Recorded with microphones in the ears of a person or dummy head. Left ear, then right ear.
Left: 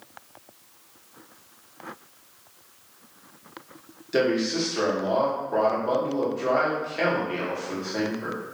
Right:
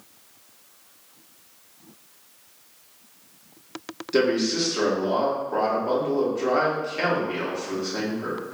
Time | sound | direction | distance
4.1 | a man speaking | 5° left (ahead or behind) | 1.0 m